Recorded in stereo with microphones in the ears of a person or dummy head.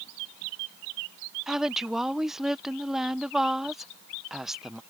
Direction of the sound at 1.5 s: 5° right (ahead or behind).